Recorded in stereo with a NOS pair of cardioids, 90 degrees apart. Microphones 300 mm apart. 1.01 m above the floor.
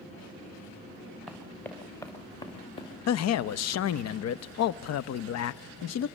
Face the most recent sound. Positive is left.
turn(degrees=60)